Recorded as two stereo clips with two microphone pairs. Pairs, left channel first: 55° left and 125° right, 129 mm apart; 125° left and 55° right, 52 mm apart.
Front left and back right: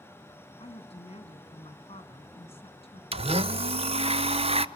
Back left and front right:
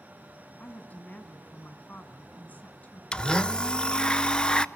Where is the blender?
160° right, 0.5 m.